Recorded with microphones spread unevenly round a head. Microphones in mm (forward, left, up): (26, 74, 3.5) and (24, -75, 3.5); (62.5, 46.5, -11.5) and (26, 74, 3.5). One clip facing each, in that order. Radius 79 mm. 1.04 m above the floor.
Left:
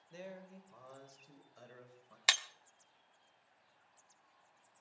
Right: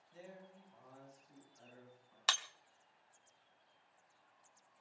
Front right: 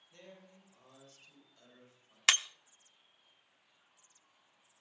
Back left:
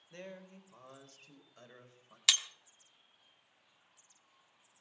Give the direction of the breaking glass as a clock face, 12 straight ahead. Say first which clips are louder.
Even, front right 3 dB; 11 o'clock.